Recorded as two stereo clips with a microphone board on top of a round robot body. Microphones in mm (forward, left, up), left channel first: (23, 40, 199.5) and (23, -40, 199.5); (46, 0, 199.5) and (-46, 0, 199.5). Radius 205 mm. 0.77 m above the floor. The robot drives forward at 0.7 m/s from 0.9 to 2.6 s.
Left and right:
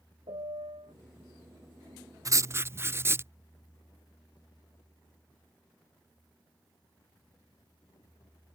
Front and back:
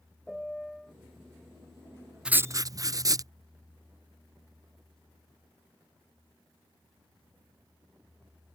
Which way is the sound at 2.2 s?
105° right.